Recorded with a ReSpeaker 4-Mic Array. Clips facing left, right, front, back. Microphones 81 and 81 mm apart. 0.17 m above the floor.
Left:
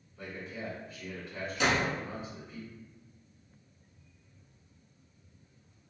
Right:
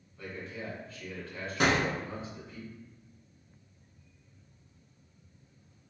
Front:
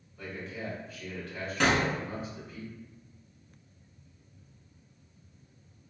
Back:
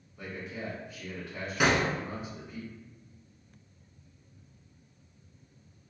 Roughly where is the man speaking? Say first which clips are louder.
Even, even; behind left.